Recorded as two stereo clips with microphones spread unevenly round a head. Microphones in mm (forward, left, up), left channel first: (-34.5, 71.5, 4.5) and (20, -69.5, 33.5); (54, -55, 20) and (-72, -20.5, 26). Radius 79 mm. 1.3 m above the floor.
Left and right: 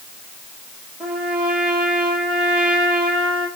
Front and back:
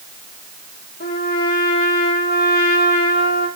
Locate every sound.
1.0 s a trumpet: 15° left, 8 m